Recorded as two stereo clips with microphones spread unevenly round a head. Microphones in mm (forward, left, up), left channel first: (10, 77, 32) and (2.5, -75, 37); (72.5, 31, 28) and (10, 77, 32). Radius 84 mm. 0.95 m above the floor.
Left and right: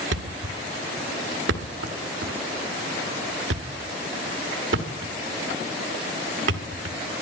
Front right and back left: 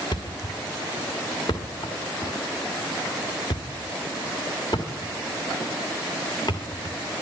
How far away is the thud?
About 1.6 m.